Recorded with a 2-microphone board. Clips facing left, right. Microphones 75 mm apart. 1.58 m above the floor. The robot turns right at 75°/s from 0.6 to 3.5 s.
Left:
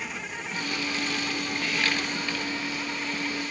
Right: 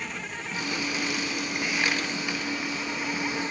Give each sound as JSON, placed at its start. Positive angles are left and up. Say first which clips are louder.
{"t": 0.0, "sound": "an insect", "louder": "even", "azimuth_deg": 5}